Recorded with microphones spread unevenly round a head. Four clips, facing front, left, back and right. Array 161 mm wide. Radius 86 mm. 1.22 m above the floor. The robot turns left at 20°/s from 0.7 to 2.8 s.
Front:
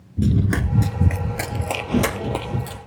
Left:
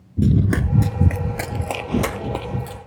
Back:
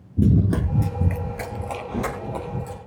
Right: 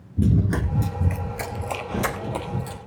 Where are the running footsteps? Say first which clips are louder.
Left 3 dB, back 1 dB; 160° right, 1.2 m; by 2.8 s straight ahead, 3 m.